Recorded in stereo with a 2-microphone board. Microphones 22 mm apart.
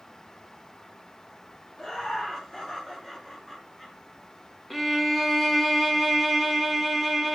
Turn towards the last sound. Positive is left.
turn(degrees=5)  # may be behind; listen again after turning